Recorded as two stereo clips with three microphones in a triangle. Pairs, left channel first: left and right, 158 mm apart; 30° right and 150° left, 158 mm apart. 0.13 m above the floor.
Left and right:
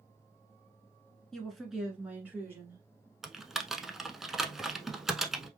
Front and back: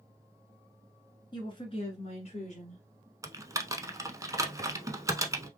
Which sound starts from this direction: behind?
Typing on a keyboard, at 3.2 s.